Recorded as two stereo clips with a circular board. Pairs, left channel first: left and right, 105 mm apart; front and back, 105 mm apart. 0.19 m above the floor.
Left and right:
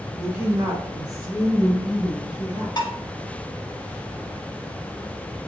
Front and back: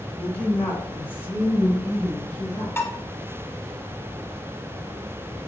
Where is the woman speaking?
55° right, 1.3 m; by 2.7 s 65° right, 2.5 m.